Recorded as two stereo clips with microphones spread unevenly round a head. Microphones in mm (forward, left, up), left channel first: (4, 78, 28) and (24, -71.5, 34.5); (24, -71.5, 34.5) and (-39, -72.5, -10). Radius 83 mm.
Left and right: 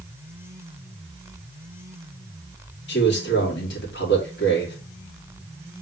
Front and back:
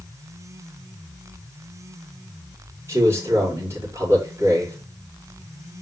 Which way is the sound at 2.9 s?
110° left.